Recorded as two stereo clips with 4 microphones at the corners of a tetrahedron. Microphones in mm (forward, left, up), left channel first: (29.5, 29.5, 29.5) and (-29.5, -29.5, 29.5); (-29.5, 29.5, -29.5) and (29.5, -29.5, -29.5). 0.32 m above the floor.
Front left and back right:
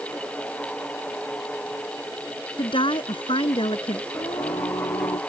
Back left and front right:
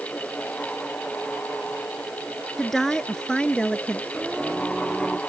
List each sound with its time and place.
2.6 s a woman speaking: 50° left; by 4.0 s 55° left
4.1 s singing: 35° left